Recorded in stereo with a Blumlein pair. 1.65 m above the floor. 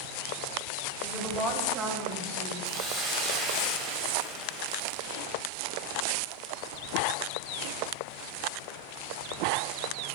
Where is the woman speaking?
5° right, 1.6 m; by 2.5 s 55° right, 2.5 m.